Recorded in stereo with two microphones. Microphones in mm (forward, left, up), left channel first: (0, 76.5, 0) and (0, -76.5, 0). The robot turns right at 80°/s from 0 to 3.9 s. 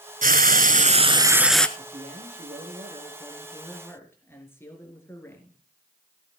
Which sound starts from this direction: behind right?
A man speaking, at 1.8 s.